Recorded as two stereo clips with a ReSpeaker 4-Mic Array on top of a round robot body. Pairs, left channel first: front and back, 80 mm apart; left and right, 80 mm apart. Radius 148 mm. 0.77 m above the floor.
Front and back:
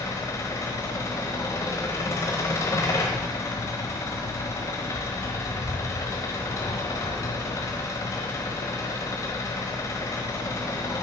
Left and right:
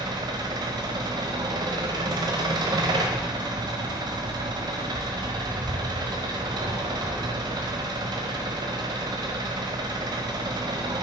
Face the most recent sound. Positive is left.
turn(degrees=-55)